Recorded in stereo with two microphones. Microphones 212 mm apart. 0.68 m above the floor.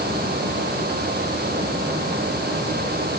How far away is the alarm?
No alarm in this recording.